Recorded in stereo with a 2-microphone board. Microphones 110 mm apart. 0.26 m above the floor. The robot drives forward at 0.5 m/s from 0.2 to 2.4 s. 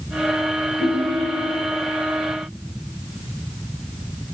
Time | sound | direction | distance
0.8 | a ringtone | 35° right (ahead or behind) | 4.5 m